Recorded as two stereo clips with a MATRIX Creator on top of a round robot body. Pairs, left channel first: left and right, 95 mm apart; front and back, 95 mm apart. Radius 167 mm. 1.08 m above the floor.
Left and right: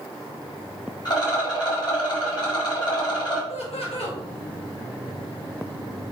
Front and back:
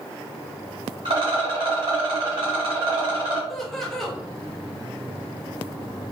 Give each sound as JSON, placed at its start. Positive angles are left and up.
{"t": 1.1, "sound": "a rattle", "azimuth_deg": 140, "distance_m": 1.3}
{"t": 3.5, "sound": "laughter", "azimuth_deg": 85, "distance_m": 1.8}